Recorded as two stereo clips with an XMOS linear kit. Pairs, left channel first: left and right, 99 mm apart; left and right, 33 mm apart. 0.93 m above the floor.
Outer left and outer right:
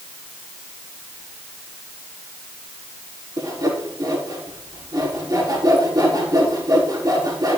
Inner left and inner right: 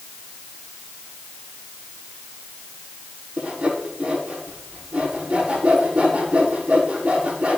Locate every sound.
3.4 s sawing: 40° right (ahead or behind), 7 m